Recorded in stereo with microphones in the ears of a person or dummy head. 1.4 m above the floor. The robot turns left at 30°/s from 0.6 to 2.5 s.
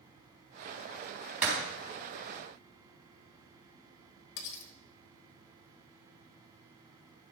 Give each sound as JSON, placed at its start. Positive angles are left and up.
{"t": 1.4, "sound": "breaking glass", "side_deg": -5, "distance_m": 3.5}
{"t": 4.4, "sound": "cutlery clinking", "side_deg": 65, "distance_m": 1.4}